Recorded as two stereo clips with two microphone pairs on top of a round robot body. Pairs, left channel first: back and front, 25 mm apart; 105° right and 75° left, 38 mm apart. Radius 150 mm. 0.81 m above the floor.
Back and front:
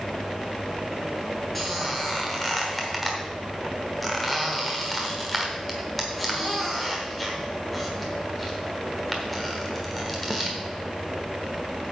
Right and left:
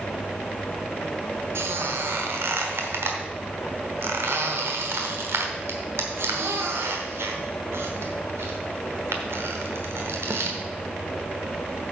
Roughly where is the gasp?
I don't hear a gasp.